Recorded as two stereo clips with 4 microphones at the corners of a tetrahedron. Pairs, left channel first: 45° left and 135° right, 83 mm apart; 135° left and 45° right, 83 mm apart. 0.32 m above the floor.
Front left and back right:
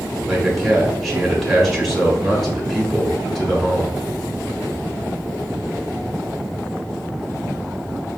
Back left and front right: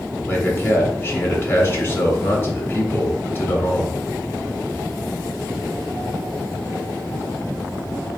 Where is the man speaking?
135° left, 1.2 m.